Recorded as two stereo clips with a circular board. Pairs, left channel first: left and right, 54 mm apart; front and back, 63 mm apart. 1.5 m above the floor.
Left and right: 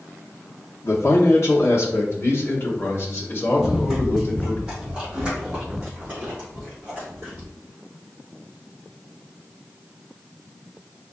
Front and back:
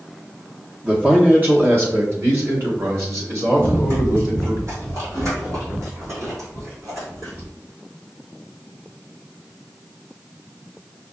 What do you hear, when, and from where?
0.8 s a man speaking: 110° left, 0.9 m; by 4.6 s 145° left, 2.5 m
3.6 s running footsteps: 170° right, 2 m; by 7.5 s 150° right, 4.5 m